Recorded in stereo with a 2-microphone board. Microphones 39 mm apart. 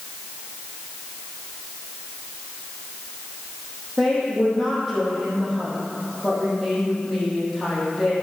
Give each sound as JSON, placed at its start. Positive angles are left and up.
{"t": 4.0, "sound": "a woman speaking", "side_deg": 0, "distance_m": 4.5}